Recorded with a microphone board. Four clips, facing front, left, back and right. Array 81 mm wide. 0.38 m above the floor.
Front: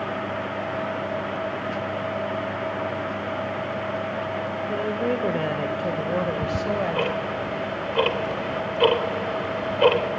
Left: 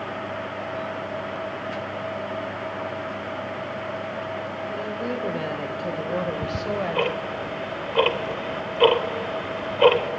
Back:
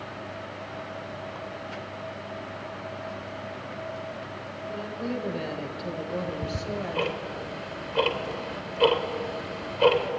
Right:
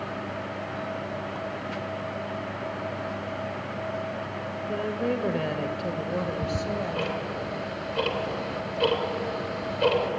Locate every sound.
4.7 s a woman speaking: 25° right, 1.6 m; by 7.1 s 40° left, 1.9 m
6.1 s ticking: 70° left, 1.7 m